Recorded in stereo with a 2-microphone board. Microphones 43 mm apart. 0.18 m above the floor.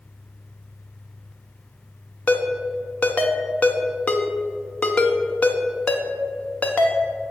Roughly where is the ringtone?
Left.